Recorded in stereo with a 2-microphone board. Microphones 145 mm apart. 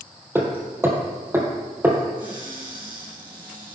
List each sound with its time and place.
0.3 s hammering: 15° right (ahead or behind), 2.5 m
2.2 s a cupboard door: 35° right (ahead or behind), 4.5 m